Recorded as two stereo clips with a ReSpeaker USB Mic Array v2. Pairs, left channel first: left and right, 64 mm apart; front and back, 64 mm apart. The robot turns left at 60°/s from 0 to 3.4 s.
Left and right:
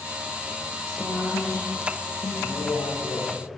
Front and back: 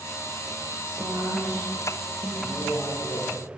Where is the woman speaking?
160° left, 4 m; by 2.3 s 70° left, 4 m.